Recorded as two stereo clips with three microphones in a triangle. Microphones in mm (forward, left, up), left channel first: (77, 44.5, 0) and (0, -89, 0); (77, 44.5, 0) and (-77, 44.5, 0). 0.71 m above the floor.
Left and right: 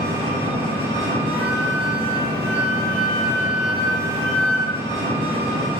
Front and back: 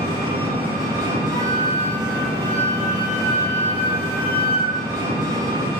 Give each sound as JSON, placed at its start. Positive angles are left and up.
{"t": 0.0, "sound": "an engine running", "azimuth_deg": -130, "distance_m": 1.8}
{"t": 1.3, "sound": "a flute", "azimuth_deg": 135, "distance_m": 2.0}